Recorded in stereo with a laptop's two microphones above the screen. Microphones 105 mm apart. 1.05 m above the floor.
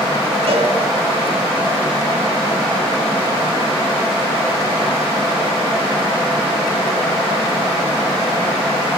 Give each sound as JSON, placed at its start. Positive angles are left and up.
{"t": 0.5, "sound": "a cowbell", "side_deg": -65, "distance_m": 2.0}